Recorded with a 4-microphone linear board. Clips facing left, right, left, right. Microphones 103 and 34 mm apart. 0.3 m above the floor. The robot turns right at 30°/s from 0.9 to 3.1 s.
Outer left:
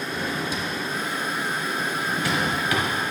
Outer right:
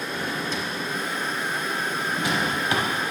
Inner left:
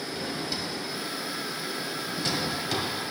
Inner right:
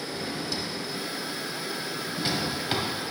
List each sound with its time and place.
0.1 s a drawer: 10° left (ahead or behind), 1.0 m; by 2.9 s 35° right (ahead or behind), 1.0 m